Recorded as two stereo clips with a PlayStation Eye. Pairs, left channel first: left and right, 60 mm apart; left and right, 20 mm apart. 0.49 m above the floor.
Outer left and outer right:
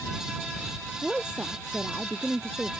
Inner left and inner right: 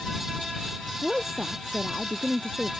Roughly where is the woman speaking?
Centre.